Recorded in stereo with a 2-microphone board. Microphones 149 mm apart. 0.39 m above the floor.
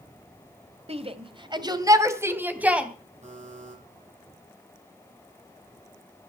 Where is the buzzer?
50° right (ahead or behind), 8.5 m.